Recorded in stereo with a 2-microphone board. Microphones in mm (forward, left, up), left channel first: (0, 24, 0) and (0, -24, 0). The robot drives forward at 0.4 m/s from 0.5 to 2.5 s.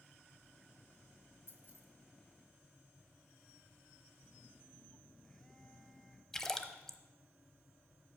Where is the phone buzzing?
10° left (ahead or behind), 1.0 m.